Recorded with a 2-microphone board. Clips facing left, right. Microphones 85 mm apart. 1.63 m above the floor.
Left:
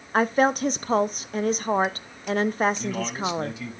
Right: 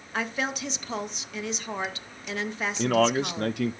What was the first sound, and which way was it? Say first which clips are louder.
A woman speaking: left 10 dB; 40° left (ahead or behind).